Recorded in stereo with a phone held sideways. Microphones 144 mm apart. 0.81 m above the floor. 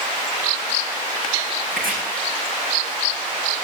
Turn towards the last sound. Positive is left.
turn(degrees=-80)